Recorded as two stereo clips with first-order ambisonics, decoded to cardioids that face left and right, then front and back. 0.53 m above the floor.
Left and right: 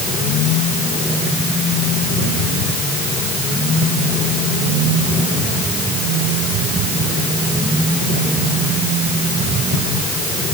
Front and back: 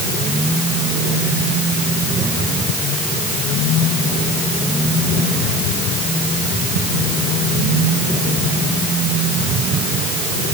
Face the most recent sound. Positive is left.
No sound to turn to.